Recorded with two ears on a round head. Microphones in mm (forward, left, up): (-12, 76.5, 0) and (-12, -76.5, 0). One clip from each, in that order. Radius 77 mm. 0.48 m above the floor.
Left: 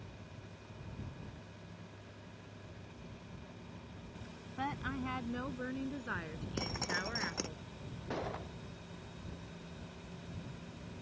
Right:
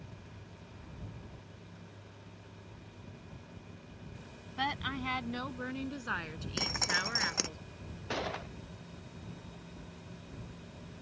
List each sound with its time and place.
4.6 s a woman speaking: 70° right (ahead or behind); by 7.6 s 80° right
6.6 s dripping: 35° right (ahead or behind)
8.1 s a gunshot: 70° right (ahead or behind)